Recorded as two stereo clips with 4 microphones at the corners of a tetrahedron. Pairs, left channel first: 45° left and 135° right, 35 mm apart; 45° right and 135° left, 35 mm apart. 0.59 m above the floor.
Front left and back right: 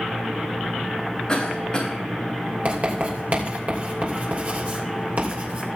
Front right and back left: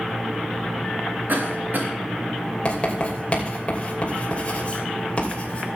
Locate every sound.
1.3 s a cough: 110° left, 4.5 m
2.6 s writing: 95° right, 3 m